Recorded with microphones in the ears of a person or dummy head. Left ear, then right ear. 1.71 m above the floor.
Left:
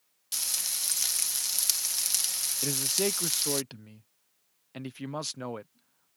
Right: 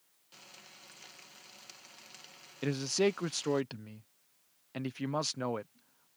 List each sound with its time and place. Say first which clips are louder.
0.3 s frying: left 21 dB; 70° left (ahead or behind)
2.6 s a man speaking: even; 5° left (ahead or behind)